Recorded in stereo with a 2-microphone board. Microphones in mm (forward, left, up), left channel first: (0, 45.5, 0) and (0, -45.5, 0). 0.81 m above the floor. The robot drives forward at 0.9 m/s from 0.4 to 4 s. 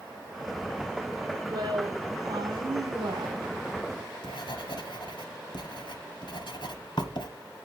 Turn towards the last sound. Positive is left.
turn(degrees=65)  # may be behind; listen again after turning